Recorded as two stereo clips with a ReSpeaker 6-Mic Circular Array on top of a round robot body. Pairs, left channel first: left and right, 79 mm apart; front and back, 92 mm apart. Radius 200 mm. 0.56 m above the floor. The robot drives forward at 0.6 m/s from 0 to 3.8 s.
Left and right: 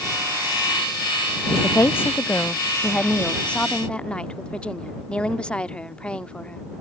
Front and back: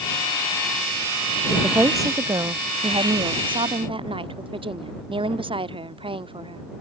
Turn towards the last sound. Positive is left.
turn(degrees=165)